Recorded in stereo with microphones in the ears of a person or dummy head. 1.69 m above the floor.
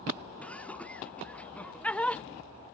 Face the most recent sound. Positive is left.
turn(degrees=10)  # may be behind; listen again after turning